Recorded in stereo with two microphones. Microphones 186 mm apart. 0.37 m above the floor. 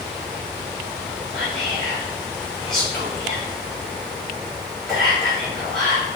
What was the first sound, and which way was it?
Whispering, 5° left (ahead or behind).